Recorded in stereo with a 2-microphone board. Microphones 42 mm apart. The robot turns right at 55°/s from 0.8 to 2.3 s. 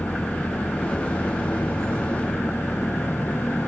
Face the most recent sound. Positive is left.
turn(degrees=125)